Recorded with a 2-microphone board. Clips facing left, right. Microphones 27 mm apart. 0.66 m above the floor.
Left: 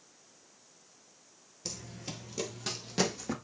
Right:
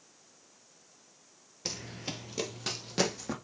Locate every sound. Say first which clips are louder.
1.6 s running footsteps: right 4 dB; 30° right (ahead or behind), 0.7 m; by 3.3 s 5° right (ahead or behind), 1.8 m